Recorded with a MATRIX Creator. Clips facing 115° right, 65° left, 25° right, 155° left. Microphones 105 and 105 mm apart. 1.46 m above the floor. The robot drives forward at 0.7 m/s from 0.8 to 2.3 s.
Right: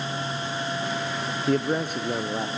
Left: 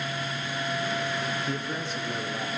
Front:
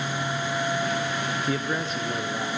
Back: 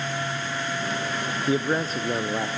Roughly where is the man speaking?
Behind right.